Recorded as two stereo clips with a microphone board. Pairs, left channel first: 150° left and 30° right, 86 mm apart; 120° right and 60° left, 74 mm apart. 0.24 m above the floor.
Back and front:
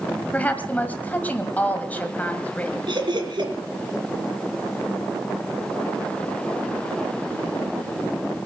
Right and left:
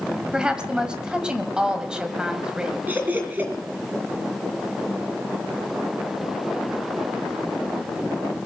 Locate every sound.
0.3 s a woman speaking: 120° left, 1.5 m
2.9 s laughter: 5° right, 4 m